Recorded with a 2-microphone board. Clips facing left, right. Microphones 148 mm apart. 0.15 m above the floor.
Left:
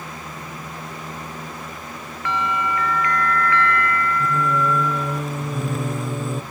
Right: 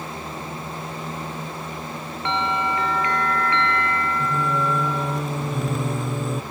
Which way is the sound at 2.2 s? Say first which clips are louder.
Even; 30° right (ahead or behind).